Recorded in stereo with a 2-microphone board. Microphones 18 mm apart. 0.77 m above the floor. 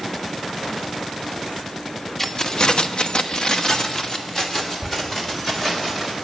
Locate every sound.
2.2 s keys jangling: 20° left (ahead or behind), 0.8 m